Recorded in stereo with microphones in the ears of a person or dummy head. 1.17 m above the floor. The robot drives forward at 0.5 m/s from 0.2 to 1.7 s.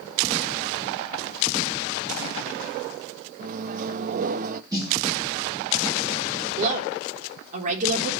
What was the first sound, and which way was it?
A microwave, 45° right (ahead or behind).